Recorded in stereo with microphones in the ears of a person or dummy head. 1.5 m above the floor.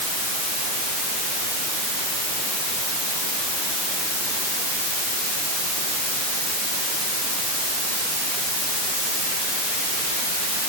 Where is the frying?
No frying in this recording.